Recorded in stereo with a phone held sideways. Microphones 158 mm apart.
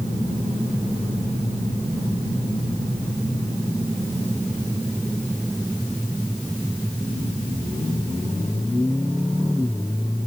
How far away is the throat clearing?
I don't hear throat clearing.